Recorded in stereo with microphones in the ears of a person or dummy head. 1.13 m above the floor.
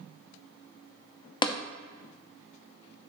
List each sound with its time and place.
1.4 s tapping: 20° left (ahead or behind), 0.6 m